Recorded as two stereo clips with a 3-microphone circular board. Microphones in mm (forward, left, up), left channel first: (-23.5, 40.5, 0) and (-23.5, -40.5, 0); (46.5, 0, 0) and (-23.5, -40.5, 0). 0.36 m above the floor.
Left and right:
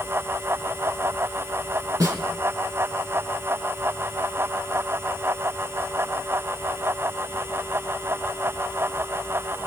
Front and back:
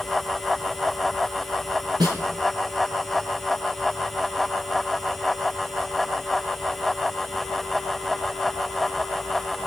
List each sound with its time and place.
2.0 s a snare drum: 120° right, 3.5 m